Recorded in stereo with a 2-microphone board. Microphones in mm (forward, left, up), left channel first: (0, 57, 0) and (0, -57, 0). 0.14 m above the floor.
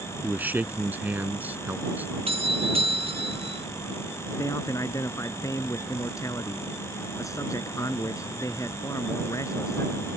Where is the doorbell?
60° right (ahead or behind).